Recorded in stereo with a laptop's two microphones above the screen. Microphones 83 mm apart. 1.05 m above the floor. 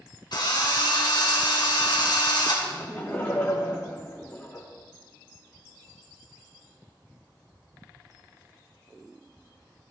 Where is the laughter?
20° left (ahead or behind), 1.0 m.